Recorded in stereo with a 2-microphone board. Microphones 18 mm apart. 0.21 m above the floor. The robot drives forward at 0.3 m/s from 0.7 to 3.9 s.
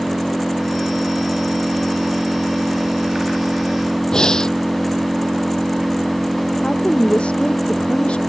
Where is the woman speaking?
80° left.